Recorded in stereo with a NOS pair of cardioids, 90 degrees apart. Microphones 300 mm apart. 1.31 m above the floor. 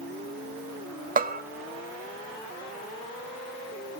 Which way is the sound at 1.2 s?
30° right.